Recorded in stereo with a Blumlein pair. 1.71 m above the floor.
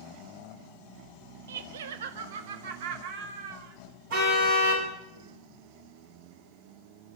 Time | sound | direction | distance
1.5 | laughter | 65° right | 0.9 m
4.1 | a car horn | 50° right | 6 m